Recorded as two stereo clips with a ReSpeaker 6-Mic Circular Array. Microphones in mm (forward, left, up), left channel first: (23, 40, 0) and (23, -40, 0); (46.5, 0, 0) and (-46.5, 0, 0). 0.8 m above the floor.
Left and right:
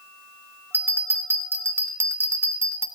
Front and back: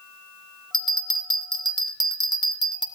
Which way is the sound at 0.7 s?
145° right.